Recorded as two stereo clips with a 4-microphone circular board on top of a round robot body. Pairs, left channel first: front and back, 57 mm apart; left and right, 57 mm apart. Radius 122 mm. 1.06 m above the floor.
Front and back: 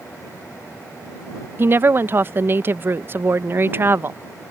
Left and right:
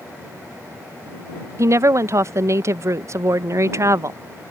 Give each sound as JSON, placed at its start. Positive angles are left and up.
{"t": 1.6, "sound": "a woman speaking", "azimuth_deg": -130}